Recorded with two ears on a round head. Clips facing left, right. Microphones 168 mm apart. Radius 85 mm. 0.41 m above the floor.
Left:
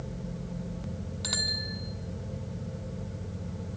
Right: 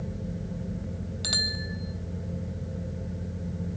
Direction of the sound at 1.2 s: 30° right (ahead or behind).